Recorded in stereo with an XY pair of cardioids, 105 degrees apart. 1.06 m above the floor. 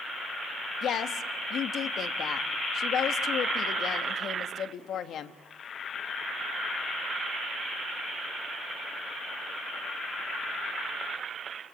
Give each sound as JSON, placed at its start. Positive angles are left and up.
{"t": 0.8, "sound": "a woman speaking", "azimuth_deg": 65, "distance_m": 1.4}